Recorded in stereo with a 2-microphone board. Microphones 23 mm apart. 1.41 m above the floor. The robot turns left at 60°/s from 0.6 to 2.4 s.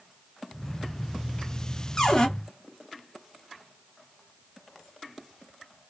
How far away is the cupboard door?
About 0.7 m.